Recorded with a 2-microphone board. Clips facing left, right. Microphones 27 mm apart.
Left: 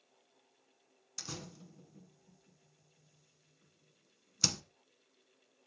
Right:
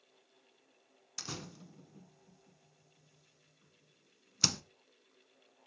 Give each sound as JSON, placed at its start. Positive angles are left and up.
{"t": 1.2, "sound": "a door slam", "side_deg": -15, "distance_m": 0.8}